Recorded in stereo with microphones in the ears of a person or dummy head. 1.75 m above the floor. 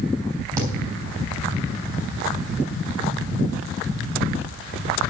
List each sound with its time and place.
0.6 s a thud: 20° right (ahead or behind), 4 m